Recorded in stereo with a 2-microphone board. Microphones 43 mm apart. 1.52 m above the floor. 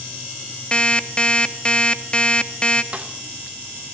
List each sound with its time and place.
0.7 s an alarm clock: 25° left (ahead or behind), 1.0 m
2.9 s a snare drum: 25° right (ahead or behind), 1.8 m